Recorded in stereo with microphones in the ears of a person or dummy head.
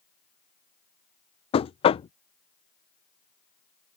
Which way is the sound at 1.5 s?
25° left (ahead or behind).